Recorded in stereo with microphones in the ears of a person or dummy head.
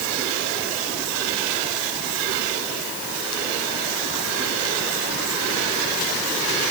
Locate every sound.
Only background noise.